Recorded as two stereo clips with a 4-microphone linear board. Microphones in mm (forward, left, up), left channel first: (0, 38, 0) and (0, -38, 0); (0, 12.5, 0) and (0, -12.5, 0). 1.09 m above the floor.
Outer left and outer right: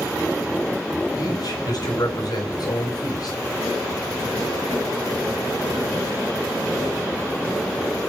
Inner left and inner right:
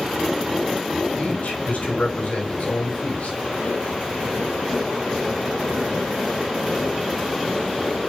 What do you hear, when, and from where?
1.2 s a man speaking: 60° left (ahead or behind), 5.5 m